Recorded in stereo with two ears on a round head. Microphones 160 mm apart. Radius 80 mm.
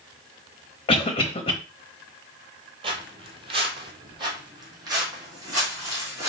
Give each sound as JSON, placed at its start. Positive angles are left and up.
{"t": 0.9, "sound": "a cough", "side_deg": 30, "distance_m": 0.9}
{"t": 2.8, "sound": "footsteps", "side_deg": -30, "distance_m": 1.3}